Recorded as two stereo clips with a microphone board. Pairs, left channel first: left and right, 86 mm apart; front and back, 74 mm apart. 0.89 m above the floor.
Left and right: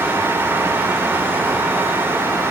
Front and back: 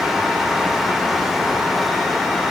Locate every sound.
Only background noise.